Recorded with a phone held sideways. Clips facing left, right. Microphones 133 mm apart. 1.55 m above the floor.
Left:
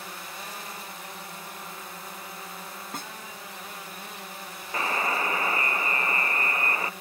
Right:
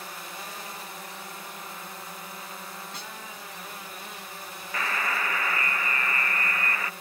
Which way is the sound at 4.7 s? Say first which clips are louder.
Left 3 dB; 25° left (ahead or behind).